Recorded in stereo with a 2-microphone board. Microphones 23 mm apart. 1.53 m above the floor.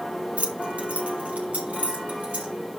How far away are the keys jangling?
About 1.4 m.